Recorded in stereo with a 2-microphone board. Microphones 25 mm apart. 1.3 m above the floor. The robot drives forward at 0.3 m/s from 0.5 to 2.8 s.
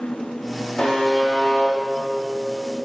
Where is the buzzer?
30° left (ahead or behind), 2.5 m; by 2.9 s 25° left (ahead or behind), 3 m.